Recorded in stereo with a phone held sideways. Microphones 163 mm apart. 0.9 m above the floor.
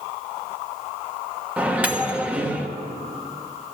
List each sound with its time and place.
1.6 s a microwave: 10° right (ahead or behind), 1.0 m